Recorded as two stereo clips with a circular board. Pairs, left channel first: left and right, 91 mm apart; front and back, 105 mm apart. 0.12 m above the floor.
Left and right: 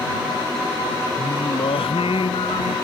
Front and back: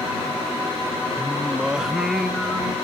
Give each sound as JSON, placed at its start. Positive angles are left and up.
{"t": 1.2, "sound": "singing", "azimuth_deg": 95}